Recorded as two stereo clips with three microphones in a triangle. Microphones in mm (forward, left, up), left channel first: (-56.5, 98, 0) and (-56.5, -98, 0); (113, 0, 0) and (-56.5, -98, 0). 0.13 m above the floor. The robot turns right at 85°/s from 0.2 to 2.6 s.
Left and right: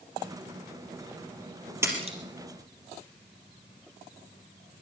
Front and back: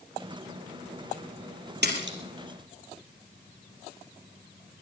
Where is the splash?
165° right, 4 m; by 2.2 s 135° right, 4 m.